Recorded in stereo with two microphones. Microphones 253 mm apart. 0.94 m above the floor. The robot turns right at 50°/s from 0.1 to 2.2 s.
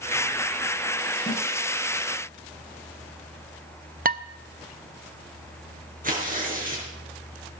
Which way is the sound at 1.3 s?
30° left (ahead or behind).